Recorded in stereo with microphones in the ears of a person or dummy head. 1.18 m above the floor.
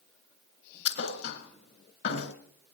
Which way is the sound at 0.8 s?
70° left (ahead or behind).